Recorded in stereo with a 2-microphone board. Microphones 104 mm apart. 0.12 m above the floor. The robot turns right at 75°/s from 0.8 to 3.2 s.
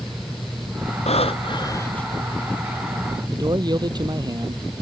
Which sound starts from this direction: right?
A man speaking, at 3.3 s.